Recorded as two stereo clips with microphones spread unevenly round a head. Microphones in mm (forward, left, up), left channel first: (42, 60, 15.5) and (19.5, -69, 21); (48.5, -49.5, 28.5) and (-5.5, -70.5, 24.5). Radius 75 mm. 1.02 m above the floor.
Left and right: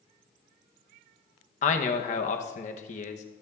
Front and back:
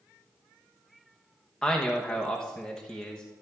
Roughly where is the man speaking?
Left.